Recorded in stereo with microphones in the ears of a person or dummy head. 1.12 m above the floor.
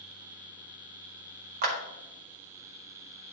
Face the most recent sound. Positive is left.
turn(degrees=-45)  # may be behind; listen again after turning